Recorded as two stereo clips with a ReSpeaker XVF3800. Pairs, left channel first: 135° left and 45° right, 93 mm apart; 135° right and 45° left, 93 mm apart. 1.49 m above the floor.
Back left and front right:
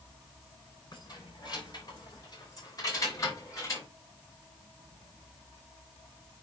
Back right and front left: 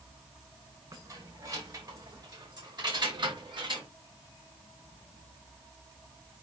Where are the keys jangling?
95° left, 5 m; by 3.9 s 80° left, 4.5 m.